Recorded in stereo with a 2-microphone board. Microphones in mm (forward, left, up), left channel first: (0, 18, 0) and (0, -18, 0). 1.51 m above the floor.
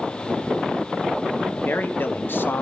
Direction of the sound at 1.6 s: 70° left (ahead or behind).